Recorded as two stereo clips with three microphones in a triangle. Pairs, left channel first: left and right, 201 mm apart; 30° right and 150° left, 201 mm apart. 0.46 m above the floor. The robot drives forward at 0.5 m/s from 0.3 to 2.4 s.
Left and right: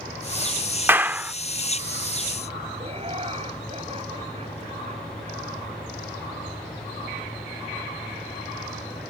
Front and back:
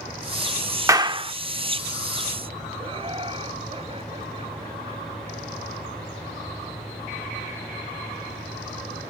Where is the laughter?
150° right.